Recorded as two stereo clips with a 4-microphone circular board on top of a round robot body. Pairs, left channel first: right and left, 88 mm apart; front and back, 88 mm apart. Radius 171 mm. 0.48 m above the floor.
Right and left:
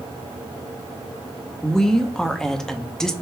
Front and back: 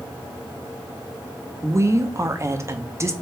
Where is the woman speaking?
170° right, 1.1 m.